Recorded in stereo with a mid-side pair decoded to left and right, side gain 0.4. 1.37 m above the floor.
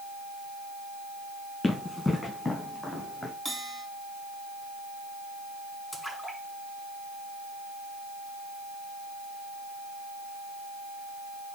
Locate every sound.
1.6 s running footsteps: 20° left, 5.5 m; by 3.3 s 25° left, 3 m
3.5 s a bell: 15° right, 4 m
5.9 s a splash: 10° left, 6.5 m